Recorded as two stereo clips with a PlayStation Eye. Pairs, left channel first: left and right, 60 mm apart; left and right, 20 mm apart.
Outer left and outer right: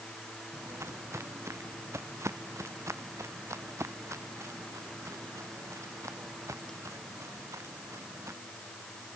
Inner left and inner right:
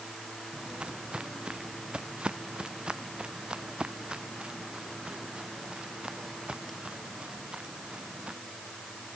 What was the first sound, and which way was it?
Footsteps, 50° right (ahead or behind).